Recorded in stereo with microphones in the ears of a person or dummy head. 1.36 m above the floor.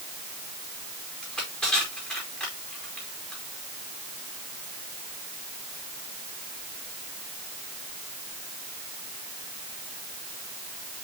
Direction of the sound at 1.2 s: 5° left (ahead or behind).